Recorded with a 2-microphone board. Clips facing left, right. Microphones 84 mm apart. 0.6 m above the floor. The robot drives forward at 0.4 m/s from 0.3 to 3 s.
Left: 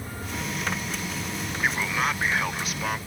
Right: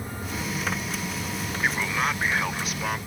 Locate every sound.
1.6 s a man speaking: centre (ahead or behind)